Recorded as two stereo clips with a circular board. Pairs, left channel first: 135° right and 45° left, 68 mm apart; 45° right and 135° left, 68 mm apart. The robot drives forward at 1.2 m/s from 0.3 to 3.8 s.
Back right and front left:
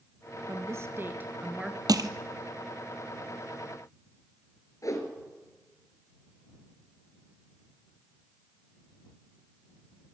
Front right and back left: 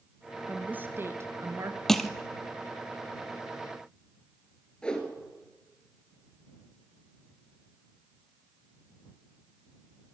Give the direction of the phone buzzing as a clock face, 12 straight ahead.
No phone buzzing in this recording.